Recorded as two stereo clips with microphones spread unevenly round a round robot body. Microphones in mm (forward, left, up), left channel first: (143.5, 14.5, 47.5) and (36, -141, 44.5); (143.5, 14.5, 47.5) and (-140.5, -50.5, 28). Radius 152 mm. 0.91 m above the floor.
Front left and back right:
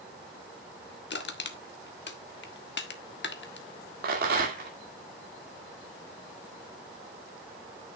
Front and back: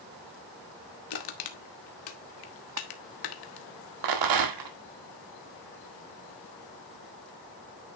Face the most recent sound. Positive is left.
turn(degrees=-175)